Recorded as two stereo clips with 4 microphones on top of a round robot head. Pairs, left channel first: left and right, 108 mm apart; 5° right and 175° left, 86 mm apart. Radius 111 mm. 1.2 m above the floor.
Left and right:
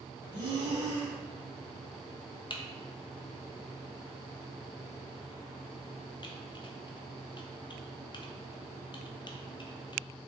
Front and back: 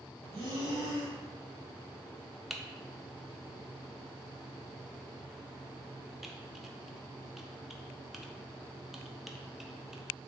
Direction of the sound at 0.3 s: 135° right.